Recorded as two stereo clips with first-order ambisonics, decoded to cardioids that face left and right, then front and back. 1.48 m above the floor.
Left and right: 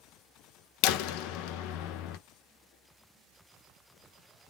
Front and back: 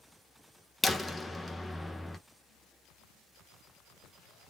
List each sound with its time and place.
0.8 s a door slam: 80° left, 0.5 m